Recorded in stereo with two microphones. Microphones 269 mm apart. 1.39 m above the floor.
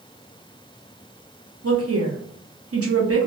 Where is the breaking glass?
I don't hear breaking glass.